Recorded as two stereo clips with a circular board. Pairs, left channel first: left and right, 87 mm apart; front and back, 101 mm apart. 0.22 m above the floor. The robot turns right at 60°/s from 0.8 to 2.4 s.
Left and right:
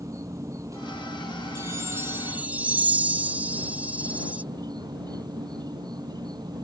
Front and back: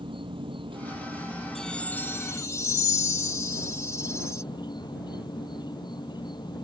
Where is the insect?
145° right; by 6.7 s 50° right.